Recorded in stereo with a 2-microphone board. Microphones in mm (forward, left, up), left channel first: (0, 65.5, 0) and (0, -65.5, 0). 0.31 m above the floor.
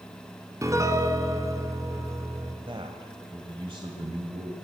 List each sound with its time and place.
0.6 s a piano: 25° right (ahead or behind), 1.3 m
2.7 s a man speaking: 40° right (ahead or behind), 1.5 m